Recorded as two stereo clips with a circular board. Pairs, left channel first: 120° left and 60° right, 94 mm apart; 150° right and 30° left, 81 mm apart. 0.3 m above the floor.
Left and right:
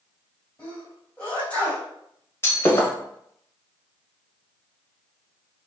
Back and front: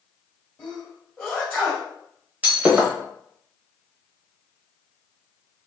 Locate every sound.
0.6 s a sneeze: 170° left, 1.6 m
2.4 s breaking glass: 80° left, 0.9 m